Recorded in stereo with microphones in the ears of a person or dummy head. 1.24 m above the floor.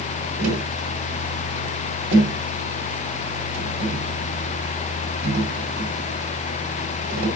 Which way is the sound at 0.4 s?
40° right (ahead or behind).